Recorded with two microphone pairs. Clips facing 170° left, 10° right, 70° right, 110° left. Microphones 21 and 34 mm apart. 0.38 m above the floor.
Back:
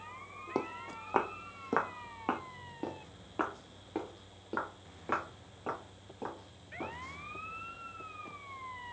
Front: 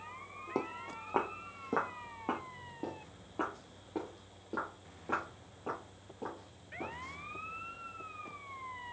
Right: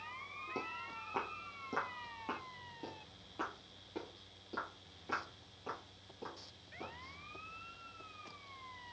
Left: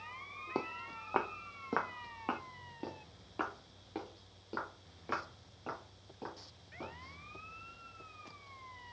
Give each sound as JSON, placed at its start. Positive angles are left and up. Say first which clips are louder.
{"t": 0.6, "sound": "footsteps", "louder": "back 1 dB, left 5 dB", "azimuth_deg": 120, "distance_m": 0.8}